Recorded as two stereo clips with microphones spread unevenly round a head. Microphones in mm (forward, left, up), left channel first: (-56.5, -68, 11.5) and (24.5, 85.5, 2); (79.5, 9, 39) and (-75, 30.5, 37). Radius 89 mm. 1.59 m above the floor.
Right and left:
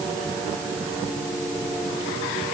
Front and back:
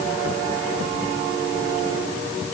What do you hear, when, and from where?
Only background noise.